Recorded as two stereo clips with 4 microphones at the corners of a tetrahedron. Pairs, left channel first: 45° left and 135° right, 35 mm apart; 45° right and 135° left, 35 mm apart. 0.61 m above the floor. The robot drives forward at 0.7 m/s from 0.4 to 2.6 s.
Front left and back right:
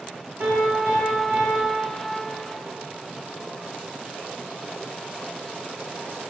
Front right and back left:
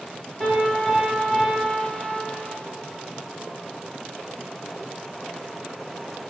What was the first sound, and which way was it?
A piano, 115° right.